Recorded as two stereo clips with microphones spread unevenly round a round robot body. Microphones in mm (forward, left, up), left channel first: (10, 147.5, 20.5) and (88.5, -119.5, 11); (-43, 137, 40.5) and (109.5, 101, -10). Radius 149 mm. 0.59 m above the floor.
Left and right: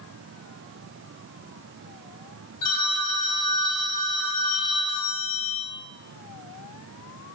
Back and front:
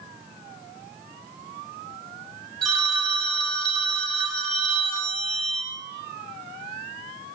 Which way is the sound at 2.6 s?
75° left.